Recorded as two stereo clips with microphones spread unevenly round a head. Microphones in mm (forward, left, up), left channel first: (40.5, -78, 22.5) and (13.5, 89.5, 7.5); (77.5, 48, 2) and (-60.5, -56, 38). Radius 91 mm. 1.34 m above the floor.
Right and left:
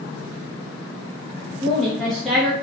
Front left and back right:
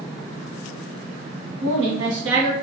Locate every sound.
1.6 s a woman speaking: 170° right, 1.1 m